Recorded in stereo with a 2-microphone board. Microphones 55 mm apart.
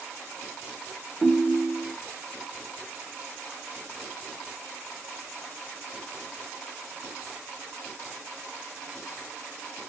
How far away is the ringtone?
About 0.6 m.